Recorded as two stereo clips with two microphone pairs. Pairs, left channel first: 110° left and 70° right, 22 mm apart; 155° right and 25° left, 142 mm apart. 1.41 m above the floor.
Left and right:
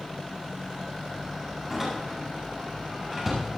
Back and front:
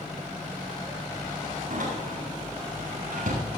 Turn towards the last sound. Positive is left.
turn(degrees=10)